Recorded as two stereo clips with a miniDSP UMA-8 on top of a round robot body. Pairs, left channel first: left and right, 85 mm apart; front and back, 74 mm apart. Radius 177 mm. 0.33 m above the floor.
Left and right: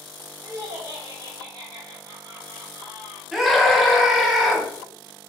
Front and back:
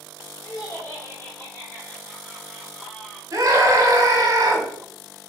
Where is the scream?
175° right, 1.9 m.